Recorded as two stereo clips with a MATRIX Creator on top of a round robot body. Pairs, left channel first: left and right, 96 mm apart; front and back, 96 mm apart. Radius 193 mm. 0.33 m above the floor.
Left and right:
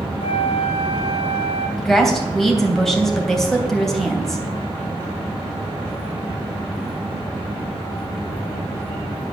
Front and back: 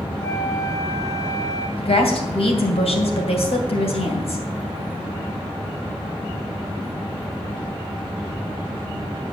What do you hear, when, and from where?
0.2 s a flute: 60° left, 0.7 m
1.8 s a woman speaking: 5° left, 3 m